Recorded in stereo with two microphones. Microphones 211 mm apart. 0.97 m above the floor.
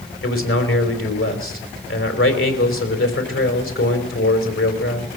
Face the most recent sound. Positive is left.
turn(degrees=85)